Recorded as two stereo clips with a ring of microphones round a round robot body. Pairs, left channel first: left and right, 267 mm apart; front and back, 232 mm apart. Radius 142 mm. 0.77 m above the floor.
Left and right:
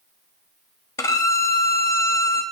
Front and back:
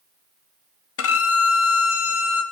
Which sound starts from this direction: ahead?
A violin, at 1.0 s.